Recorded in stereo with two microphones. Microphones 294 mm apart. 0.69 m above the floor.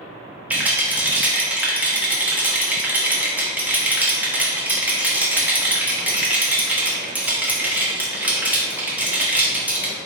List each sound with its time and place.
0.5 s a rattle: 5° right (ahead or behind), 0.8 m